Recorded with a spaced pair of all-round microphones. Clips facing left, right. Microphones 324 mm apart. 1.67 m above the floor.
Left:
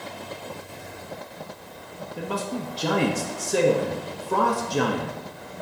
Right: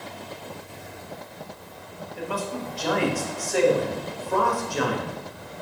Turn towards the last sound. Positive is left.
turn(degrees=45)  # may be behind; listen again after turning